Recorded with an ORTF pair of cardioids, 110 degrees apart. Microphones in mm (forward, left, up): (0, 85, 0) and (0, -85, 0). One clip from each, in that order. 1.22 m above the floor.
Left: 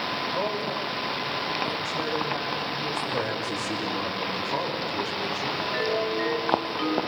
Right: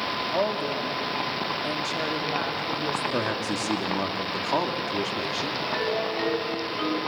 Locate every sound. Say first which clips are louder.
0.3 s a woman speaking: right 2 dB; 70° right, 3 m; by 3.3 s 50° right, 4.5 m
3.1 s a man speaking: right 1 dB; 60° right, 3 m
5.6 s a ringtone: left 1 dB; 5° left, 8 m